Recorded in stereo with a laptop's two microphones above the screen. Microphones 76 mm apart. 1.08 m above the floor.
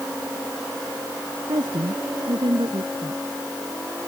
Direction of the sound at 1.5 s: 80° right.